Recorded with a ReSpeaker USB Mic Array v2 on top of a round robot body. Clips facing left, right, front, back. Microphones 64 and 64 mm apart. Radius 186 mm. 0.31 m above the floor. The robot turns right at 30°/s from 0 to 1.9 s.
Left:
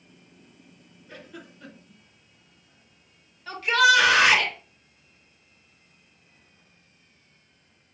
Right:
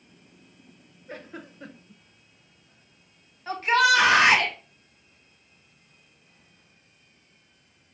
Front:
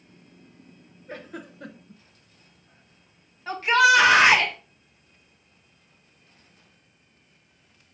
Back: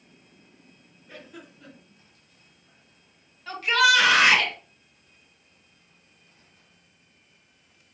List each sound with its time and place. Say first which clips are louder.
1.1 s a giggle: right 3 dB, front 6 dB; 45° right, 0.9 m; by 2.0 s 20° right, 0.9 m
3.5 s a shout: left 1 dB, front 3 dB; 50° right, 2 m